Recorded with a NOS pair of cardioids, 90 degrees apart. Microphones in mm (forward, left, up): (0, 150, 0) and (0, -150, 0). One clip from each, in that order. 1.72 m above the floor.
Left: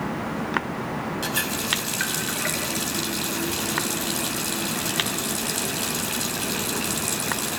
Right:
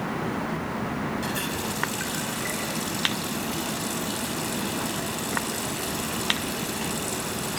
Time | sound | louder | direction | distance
1.2 | a running tap | left 3 dB | 55° left | 7 m